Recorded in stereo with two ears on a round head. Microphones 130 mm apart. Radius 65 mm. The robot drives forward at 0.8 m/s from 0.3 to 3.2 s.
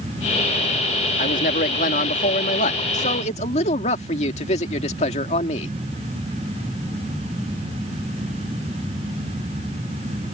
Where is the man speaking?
55° left (ahead or behind); by 5.7 s 50° left (ahead or behind).